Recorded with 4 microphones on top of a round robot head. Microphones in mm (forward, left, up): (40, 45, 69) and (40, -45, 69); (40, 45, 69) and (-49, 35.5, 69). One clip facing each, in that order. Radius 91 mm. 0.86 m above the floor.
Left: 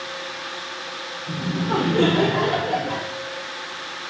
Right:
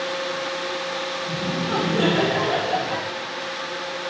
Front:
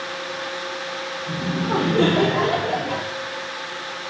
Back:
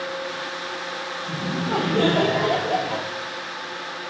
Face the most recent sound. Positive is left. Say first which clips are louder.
# left 3 dB, front 2 dB
turn(degrees=45)